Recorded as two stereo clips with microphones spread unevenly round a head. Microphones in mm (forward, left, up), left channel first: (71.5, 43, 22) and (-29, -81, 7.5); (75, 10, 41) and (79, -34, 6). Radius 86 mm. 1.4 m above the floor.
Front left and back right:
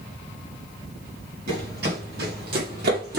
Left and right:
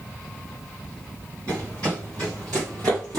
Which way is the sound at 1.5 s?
160° right.